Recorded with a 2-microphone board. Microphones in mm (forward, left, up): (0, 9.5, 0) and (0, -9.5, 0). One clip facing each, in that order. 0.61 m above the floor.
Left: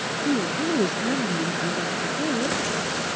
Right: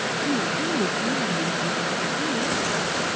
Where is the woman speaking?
40° left (ahead or behind).